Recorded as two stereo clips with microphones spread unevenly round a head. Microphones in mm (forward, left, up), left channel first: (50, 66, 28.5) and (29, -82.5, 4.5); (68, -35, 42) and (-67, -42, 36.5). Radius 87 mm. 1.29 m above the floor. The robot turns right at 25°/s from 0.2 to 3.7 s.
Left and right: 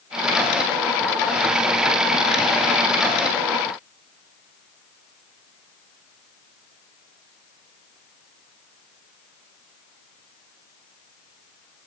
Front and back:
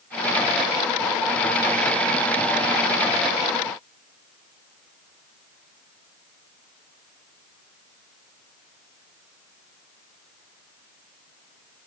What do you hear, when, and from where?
Only background noise.